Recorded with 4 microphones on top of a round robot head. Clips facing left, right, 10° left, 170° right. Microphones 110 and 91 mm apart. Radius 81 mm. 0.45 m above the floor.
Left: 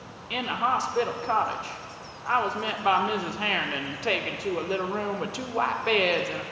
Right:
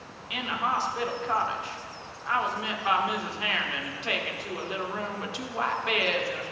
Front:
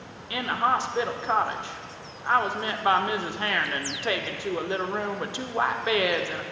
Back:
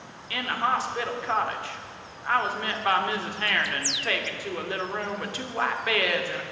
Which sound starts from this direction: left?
A woman speaking, at 0.3 s.